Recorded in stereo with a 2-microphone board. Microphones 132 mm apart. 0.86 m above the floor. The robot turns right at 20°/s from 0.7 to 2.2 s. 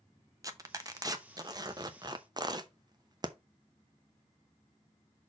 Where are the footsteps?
No footsteps in this recording.